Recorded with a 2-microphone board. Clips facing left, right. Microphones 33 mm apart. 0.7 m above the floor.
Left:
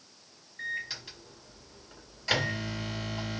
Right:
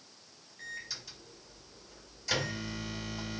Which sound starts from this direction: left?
A microwave, at 0.6 s.